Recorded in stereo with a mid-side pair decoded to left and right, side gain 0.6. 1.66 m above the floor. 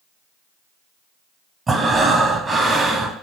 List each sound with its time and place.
1.7 s breathing: 25° right, 0.9 m